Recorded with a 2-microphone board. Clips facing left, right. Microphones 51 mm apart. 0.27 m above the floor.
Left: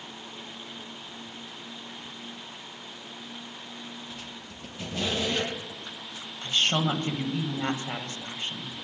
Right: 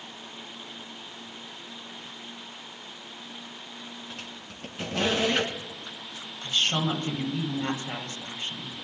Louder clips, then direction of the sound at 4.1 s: Even; 55° right (ahead or behind).